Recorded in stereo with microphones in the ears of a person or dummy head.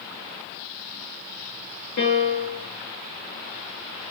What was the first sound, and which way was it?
A piano, 50° left (ahead or behind).